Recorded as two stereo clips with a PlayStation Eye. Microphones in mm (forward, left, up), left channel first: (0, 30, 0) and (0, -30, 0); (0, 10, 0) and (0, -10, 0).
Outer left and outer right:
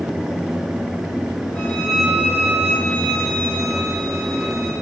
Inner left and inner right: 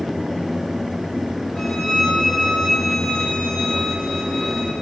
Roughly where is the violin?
Centre.